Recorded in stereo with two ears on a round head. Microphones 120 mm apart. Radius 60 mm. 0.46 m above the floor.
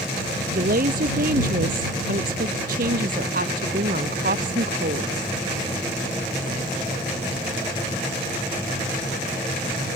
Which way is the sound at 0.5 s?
70° right (ahead or behind).